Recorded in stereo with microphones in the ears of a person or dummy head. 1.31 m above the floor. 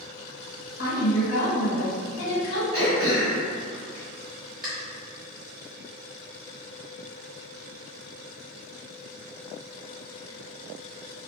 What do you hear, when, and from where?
0.8 s a woman speaking: 75° left (ahead or behind), 1.4 m
2.7 s throat clearing: 5° right (ahead or behind), 1.2 m